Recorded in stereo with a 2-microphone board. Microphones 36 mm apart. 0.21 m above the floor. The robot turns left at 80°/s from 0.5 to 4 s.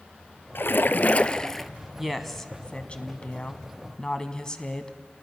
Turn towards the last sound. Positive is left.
turn(degrees=35)